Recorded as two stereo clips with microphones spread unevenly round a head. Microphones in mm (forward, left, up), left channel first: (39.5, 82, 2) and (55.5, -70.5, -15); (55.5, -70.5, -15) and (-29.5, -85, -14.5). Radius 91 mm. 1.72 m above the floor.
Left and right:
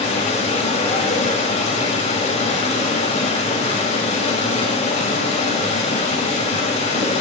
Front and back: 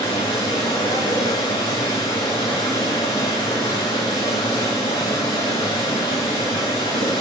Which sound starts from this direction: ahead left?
Running water, at 0.0 s.